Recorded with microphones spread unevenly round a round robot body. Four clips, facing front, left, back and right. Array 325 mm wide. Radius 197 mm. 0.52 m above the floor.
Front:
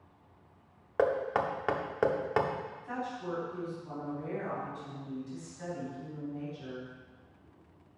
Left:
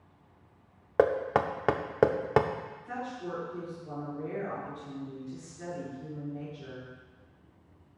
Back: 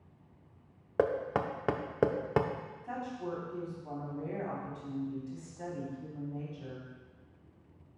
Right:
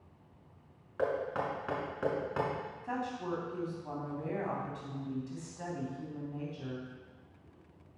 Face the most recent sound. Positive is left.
turn(degrees=-110)